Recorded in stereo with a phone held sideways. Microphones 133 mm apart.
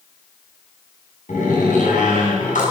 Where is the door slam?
75° left (ahead or behind), 7 m.